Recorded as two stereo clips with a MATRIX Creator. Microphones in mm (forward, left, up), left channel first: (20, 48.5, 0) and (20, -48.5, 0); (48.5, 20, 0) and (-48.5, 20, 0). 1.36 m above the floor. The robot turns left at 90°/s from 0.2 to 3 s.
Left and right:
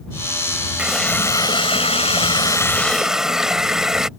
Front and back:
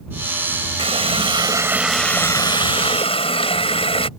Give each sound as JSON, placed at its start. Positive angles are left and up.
{"t": 0.8, "sound": "a running tap", "azimuth_deg": -165}